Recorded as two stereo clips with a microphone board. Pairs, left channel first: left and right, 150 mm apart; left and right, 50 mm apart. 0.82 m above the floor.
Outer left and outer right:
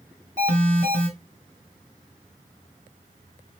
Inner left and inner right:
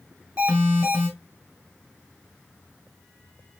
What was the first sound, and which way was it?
An alarm, 55° right (ahead or behind).